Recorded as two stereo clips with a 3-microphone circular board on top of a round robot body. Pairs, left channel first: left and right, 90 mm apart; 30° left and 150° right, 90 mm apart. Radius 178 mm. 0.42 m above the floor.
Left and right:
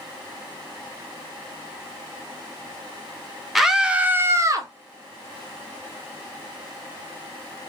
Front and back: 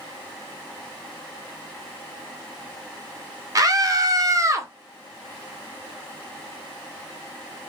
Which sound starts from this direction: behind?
A scream, at 3.5 s.